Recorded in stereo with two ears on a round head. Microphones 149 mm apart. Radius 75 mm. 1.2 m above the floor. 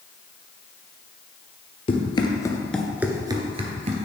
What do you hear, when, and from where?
1.9 s running footsteps: 35° left (ahead or behind), 1.8 m; by 4.0 s 45° right (ahead or behind), 1.8 m